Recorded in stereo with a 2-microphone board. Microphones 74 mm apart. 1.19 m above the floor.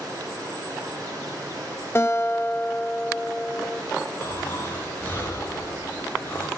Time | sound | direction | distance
0.0 | running water | 50° right (ahead or behind) | 7.5 m
1.9 | a guitar | 35° left (ahead or behind) | 0.9 m
4.2 | snoring | 30° left (ahead or behind) | 4.5 m